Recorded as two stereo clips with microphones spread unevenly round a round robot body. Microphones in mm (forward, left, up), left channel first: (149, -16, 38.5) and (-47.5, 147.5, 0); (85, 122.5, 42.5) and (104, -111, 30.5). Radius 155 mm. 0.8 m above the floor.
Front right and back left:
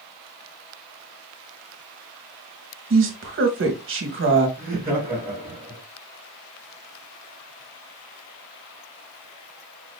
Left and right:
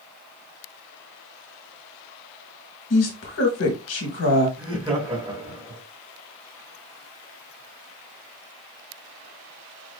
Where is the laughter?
150° right, 1.4 m.